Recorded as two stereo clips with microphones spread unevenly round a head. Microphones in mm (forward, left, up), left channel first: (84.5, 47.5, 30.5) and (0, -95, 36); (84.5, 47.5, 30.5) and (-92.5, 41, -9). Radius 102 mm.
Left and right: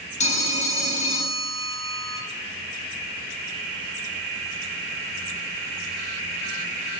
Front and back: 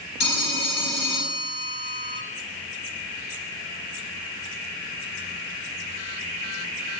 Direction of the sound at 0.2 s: 15° left.